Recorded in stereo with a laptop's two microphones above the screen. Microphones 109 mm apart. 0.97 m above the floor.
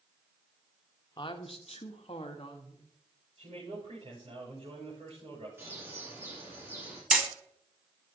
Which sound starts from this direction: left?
A woman speaking, at 1.2 s.